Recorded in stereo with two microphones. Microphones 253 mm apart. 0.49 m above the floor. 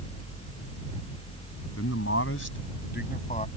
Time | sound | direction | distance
1.8 | a man speaking | 70° left (ahead or behind) | ?